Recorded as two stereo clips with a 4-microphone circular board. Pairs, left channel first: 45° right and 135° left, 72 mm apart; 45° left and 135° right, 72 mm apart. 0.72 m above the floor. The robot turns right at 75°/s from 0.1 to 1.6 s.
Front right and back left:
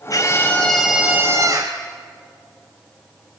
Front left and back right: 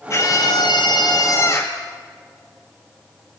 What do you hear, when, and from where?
0.1 s a scream: 5° right, 4 m; by 1.8 s 110° left, 4 m